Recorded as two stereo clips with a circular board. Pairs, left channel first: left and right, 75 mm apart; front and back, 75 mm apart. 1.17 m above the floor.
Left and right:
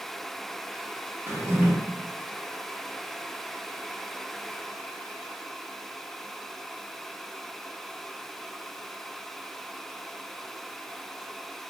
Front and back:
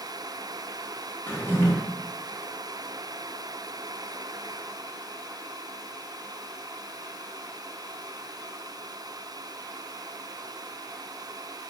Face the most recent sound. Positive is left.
turn(degrees=-50)